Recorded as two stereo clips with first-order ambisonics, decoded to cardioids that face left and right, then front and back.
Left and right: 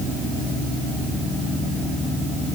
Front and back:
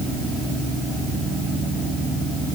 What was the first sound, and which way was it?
Only background noise.